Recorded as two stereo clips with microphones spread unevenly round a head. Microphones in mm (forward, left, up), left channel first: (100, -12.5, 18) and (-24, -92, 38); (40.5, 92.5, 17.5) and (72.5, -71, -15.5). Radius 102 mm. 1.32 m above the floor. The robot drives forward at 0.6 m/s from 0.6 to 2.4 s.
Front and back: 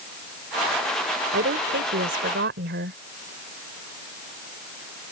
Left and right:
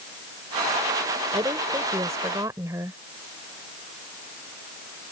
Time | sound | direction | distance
1.3 | a woman speaking | 155° right | ?